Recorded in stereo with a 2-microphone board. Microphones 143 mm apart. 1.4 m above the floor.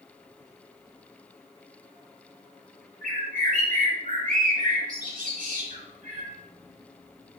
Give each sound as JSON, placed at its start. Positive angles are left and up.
{"t": 3.0, "sound": "a bird", "side_deg": -80, "distance_m": 2.5}